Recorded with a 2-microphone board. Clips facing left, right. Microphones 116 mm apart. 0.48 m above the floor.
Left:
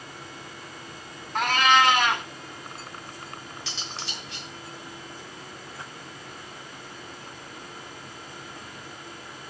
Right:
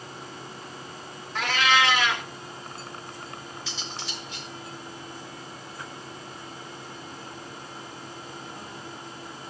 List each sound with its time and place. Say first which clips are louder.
1.4 s a cat meowing: left 3 dB; 45° left (ahead or behind), 1.6 m
3.7 s cutlery clinking: even; 70° left (ahead or behind), 4.5 m